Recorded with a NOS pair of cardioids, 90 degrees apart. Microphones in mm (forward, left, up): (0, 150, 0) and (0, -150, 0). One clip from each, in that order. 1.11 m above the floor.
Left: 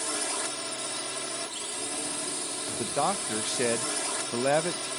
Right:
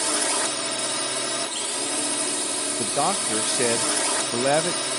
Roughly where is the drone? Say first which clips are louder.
Right 7 dB; ahead right.